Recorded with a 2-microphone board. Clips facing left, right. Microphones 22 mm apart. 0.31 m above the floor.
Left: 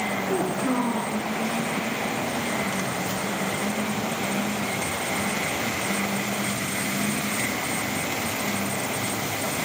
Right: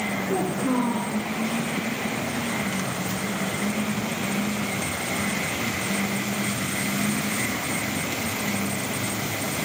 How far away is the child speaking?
About 3.5 m.